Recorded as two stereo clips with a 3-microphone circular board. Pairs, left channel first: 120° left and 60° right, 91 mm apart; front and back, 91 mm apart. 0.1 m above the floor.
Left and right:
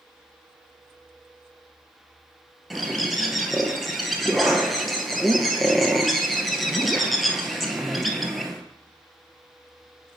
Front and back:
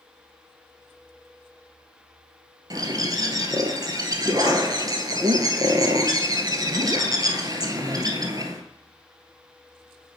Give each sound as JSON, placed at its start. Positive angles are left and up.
{"t": 2.7, "sound": "a bird", "azimuth_deg": -150, "distance_m": 0.8}